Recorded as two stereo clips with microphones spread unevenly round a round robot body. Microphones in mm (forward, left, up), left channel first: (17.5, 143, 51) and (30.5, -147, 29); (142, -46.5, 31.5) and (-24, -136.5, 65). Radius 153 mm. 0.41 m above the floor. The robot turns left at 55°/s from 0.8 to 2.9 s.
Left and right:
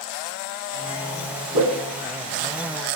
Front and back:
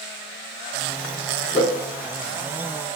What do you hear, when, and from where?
1.5 s a whoosh: 70° right, 3.5 m; by 1.7 s 80° right, 3.5 m